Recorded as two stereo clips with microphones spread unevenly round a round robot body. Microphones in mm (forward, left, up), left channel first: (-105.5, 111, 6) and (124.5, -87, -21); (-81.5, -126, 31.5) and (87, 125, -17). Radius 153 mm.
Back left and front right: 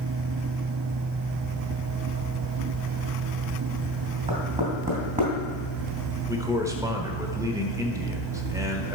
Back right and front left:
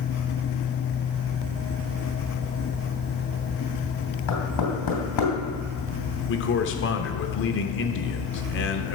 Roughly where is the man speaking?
Right.